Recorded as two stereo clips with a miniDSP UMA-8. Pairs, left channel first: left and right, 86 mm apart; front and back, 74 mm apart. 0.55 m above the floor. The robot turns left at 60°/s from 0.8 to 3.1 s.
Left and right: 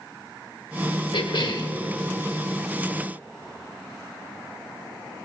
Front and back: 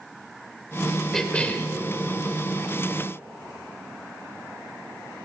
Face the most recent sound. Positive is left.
turn(degrees=-30)